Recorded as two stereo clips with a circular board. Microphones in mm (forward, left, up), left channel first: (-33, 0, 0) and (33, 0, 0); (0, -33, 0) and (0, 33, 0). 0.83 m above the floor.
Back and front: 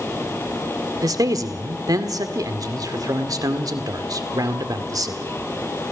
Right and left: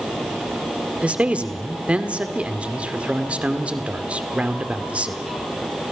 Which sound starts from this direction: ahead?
A man speaking, at 1.0 s.